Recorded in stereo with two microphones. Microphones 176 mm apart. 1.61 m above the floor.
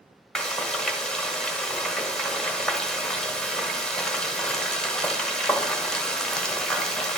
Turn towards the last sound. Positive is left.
turn(degrees=5)  # may be behind; listen again after turning